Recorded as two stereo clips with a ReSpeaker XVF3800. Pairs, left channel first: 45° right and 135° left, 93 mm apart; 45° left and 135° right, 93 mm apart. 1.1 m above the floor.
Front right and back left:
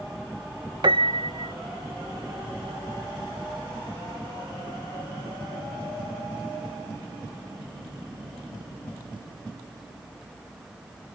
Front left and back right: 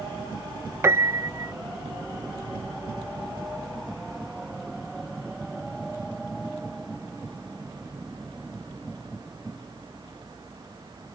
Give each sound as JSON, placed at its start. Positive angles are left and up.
{"t": 0.8, "sound": "a piano", "azimuth_deg": 165}